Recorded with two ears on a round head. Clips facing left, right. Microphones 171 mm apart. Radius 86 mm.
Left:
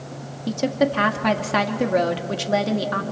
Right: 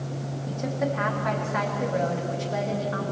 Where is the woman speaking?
85° left, 2 m.